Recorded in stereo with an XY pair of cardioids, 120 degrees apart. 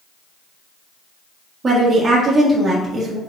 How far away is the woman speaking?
About 1.4 m.